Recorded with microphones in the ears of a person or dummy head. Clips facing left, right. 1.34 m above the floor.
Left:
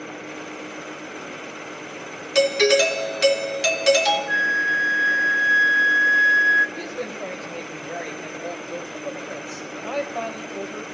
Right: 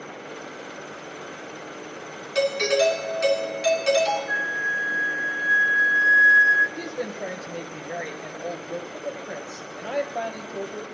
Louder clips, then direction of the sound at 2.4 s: Left 4 dB; 55° left (ahead or behind).